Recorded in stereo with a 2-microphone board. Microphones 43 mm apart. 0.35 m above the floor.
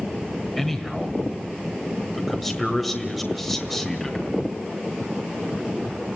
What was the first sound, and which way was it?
A man speaking, centre (ahead or behind).